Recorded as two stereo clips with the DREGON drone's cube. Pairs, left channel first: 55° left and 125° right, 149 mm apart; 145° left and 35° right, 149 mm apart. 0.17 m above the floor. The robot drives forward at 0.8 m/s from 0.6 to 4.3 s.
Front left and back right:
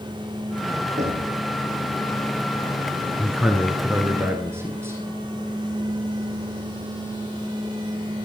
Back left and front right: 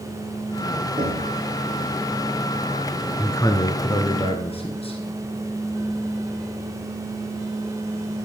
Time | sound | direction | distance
1.0 | knocking | 90° right | 6 m
3.2 | a man speaking | 145° left | 1.2 m